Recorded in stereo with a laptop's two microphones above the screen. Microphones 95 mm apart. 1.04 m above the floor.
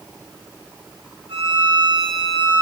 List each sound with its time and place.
1.3 s a violin: 90° right, 6.5 m